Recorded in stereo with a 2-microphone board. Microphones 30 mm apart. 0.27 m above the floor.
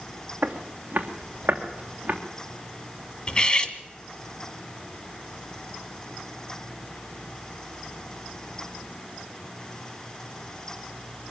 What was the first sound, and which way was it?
Footsteps, 70° right (ahead or behind).